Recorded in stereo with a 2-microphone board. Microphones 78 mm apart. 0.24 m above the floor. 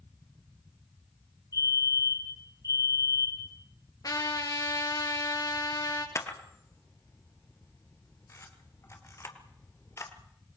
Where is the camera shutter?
40° left (ahead or behind), 3 m.